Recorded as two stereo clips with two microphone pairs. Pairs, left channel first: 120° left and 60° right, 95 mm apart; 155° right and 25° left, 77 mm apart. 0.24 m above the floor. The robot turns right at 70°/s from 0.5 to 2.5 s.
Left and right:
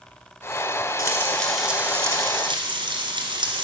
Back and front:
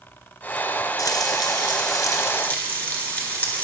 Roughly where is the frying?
Behind.